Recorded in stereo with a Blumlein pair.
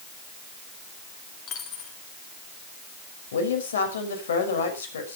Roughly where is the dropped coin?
Ahead left.